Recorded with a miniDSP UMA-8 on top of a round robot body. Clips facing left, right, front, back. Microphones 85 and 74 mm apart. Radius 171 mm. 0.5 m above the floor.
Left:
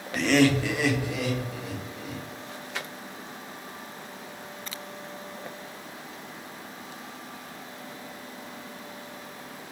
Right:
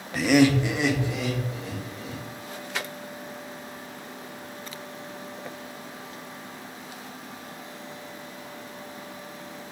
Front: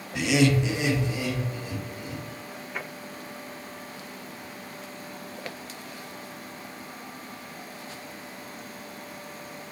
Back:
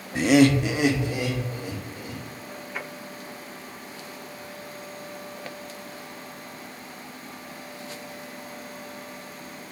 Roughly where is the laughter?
Behind.